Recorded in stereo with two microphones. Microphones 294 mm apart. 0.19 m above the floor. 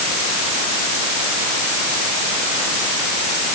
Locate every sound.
Only background noise.